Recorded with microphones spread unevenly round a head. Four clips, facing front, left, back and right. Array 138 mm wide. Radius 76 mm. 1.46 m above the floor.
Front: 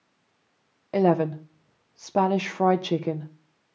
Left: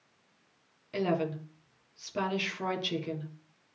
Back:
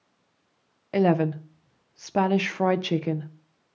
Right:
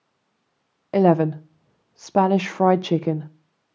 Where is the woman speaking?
90° right, 0.5 m.